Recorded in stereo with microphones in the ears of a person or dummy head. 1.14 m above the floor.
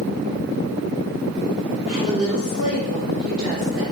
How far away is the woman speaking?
About 3.5 m.